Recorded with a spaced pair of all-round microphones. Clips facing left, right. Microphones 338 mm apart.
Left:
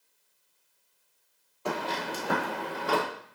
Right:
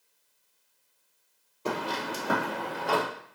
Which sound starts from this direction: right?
Footsteps, at 1.6 s.